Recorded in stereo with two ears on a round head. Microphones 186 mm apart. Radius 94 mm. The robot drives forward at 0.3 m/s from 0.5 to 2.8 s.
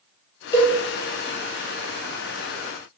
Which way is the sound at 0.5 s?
20° left (ahead or behind).